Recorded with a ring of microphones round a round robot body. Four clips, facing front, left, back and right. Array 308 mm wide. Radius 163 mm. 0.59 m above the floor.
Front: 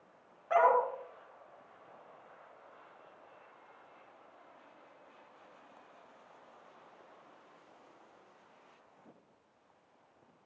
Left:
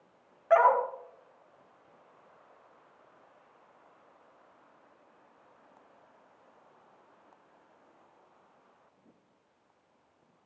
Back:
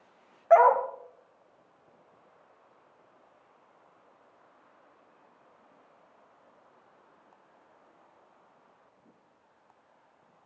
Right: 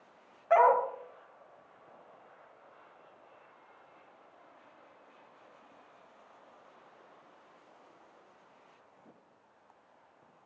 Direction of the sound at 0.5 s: 165° left.